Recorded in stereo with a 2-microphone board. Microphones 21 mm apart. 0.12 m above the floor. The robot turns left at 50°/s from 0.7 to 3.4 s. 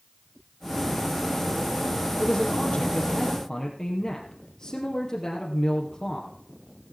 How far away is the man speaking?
About 2.5 m.